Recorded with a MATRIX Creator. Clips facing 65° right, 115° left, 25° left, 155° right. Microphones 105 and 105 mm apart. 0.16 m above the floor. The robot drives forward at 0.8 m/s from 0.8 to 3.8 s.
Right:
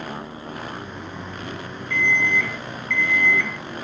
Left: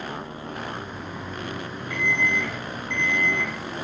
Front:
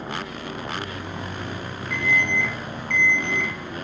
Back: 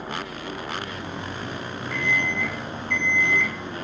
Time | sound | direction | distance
1.9 | an alarm clock | 35° left | 2 m